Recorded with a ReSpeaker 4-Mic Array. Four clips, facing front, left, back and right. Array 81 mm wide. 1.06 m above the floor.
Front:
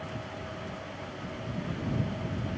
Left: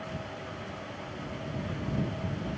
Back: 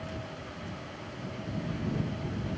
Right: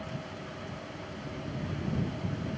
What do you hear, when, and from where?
Only background noise.